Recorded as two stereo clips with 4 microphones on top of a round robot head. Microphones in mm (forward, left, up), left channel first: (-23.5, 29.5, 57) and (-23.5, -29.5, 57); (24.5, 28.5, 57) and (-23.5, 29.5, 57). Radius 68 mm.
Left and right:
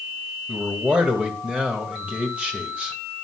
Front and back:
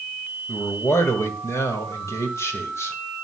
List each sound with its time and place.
0.5 s a man speaking: 20° right, 2.5 m